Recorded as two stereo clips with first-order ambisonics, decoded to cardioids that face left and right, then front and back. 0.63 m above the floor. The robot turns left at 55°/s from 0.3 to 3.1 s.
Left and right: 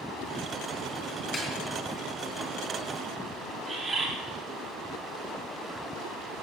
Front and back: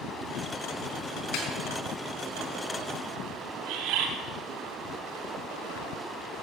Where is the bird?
165° right, 3 m.